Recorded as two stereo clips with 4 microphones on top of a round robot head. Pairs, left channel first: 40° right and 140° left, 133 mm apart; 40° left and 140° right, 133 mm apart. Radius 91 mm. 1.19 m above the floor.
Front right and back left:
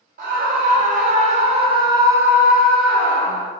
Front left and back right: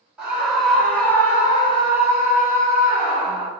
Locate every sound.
0.2 s a scream: 135° left, 1.4 m; by 3.5 s 30° left, 1.3 m